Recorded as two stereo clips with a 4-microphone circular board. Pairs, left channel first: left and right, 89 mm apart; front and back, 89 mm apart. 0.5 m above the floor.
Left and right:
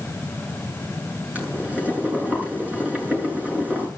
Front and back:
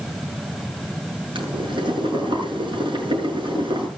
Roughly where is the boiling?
Behind.